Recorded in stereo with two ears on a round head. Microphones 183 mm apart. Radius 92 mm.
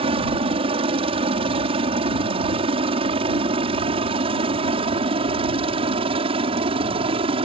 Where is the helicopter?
25° right (ahead or behind).